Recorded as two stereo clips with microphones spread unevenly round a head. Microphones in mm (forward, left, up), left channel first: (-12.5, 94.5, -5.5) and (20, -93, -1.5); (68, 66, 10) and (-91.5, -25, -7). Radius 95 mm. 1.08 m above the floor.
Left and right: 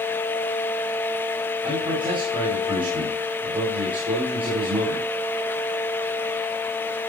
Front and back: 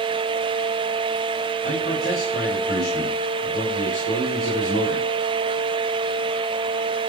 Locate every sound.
1.6 s a man speaking: 15° right, 8 m